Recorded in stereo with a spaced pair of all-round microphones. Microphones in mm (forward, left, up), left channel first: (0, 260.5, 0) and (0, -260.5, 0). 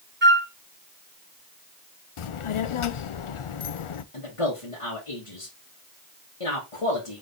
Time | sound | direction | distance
0.2 | a flute | 20° right (ahead or behind) | 0.6 m
2.2 | a child speaking | 70° left (ahead or behind) | 0.5 m
4.1 | a man speaking | 70° left (ahead or behind) | 1.3 m